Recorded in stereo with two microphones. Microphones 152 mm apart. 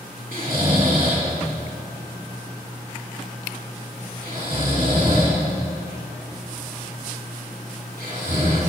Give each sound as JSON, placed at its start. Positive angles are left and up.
{"t": 0.3, "sound": "snoring", "side_deg": -65, "distance_m": 3.0}